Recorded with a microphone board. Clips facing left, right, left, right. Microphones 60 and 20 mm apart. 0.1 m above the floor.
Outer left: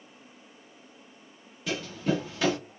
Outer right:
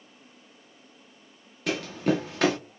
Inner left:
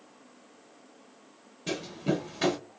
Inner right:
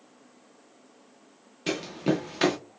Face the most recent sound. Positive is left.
turn(degrees=-65)  # may be behind; listen again after turning